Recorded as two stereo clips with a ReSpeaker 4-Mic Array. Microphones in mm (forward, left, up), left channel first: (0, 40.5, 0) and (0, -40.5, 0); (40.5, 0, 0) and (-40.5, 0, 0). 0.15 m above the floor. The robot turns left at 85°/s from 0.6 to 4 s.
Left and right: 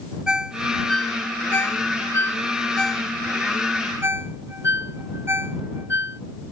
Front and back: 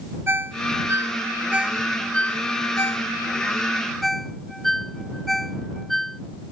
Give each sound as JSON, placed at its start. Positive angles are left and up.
{"t": 0.3, "sound": "a ringtone", "azimuth_deg": -160}